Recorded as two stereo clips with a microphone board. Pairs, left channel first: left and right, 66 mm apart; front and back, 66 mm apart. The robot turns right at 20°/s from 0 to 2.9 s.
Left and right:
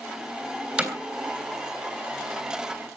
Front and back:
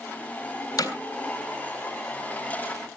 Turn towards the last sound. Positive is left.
turn(degrees=25)